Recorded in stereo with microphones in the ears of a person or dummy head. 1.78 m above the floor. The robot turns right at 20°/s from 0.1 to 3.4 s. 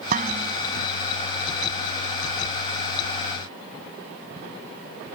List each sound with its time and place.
0.1 s dishes clattering: 50° right (ahead or behind); by 0.6 s 40° right (ahead or behind)